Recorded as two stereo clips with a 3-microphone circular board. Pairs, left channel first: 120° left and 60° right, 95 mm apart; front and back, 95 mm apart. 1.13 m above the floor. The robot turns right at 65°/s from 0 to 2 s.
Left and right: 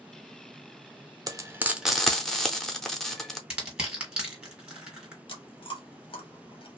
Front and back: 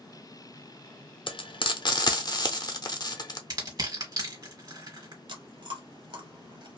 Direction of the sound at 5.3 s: 150° left.